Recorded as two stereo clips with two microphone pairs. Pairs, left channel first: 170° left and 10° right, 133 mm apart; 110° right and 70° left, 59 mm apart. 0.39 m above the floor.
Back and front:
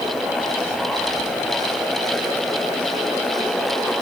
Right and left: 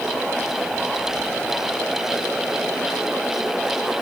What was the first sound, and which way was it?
Only background noise.